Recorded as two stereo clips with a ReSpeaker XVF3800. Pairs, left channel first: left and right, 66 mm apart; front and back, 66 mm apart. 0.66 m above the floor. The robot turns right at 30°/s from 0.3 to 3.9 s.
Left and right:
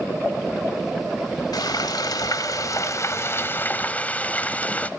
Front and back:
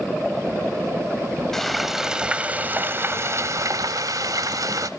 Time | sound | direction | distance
1.5 | frying | 85° left | 1.2 m